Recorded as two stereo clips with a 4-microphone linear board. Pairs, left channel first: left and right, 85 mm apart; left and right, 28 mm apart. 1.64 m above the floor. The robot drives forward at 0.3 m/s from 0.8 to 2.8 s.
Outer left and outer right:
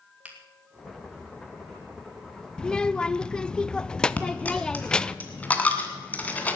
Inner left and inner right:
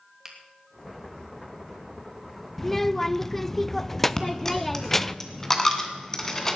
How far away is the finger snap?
About 2.5 m.